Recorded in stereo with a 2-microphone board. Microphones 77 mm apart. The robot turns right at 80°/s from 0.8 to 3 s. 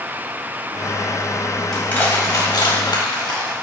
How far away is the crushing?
About 1.9 m.